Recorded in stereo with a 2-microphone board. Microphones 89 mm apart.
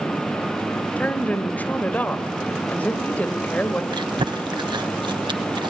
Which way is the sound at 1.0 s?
20° left (ahead or behind).